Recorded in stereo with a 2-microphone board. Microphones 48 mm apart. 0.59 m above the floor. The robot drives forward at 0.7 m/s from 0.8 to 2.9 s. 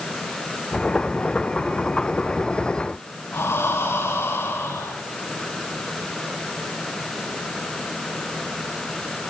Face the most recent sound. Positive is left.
turn(degrees=65)  # may be behind; listen again after turning